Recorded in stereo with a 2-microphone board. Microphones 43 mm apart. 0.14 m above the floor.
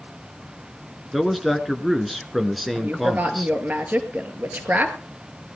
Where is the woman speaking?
40° right (ahead or behind), 2.5 m.